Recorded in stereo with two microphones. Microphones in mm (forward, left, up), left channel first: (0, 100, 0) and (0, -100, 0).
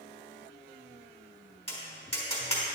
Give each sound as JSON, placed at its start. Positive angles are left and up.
{"t": 1.7, "sound": "tapping", "side_deg": 30, "distance_m": 4.0}